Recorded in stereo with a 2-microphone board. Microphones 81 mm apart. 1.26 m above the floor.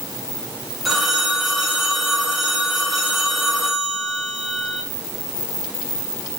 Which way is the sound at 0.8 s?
Centre (ahead or behind).